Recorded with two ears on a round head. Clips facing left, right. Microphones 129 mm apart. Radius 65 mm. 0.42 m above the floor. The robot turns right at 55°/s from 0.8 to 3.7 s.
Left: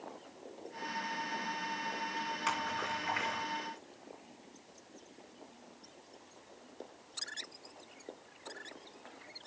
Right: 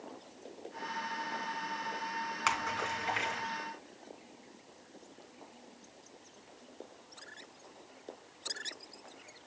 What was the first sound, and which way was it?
A splash, 65° right (ahead or behind).